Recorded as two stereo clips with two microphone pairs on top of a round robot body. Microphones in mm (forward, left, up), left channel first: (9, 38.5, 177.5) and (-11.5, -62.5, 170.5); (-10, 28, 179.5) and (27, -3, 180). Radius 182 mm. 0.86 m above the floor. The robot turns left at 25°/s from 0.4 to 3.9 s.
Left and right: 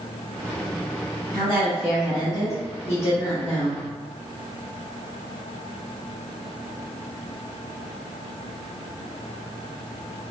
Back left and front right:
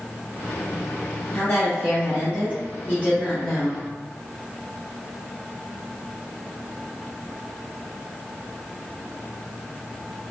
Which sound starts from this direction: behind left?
A woman speaking, at 1.3 s.